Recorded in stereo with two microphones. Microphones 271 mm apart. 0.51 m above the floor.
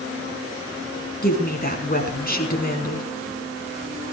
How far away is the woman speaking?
About 4.5 m.